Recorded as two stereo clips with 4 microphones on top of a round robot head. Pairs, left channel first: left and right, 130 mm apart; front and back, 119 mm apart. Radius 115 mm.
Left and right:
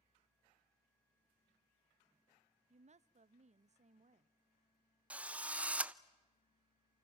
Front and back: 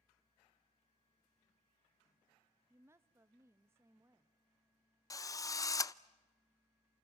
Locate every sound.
2.7 s a woman speaking: 115° right, 0.7 m
5.1 s a drill: 20° right, 0.7 m